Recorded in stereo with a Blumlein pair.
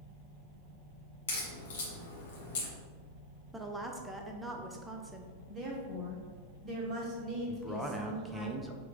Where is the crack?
60° left, 1.3 m.